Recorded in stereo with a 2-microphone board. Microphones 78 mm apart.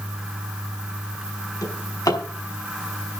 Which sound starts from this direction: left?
A drawer, at 1.6 s.